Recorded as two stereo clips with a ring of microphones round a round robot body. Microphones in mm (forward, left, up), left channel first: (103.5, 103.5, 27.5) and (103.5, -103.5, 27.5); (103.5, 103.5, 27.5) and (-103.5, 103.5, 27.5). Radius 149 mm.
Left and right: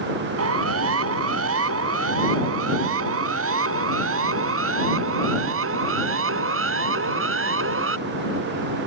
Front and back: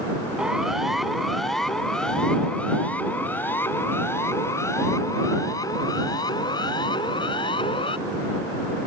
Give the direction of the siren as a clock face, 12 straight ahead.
3 o'clock.